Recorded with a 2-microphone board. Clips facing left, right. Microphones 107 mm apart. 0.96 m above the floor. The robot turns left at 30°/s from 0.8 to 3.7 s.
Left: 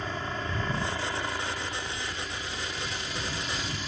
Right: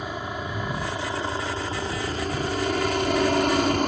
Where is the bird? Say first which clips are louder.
Right 7 dB; 55° right; by 3.8 s 115° right.